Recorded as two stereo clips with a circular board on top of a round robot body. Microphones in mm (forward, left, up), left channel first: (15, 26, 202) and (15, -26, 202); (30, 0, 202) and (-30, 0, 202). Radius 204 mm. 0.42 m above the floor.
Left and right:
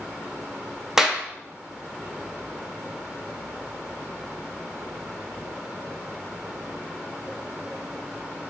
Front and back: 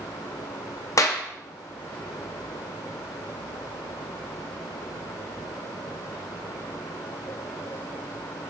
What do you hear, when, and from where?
1.0 s a clap: 10° right, 0.6 m